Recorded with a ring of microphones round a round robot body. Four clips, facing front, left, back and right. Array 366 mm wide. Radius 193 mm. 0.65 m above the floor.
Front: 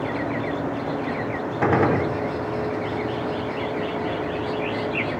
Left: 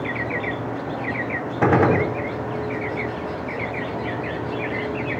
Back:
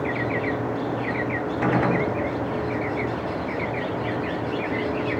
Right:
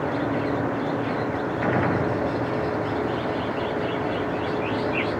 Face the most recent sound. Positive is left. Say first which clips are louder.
# left 7 dB, front 3 dB
turn(degrees=70)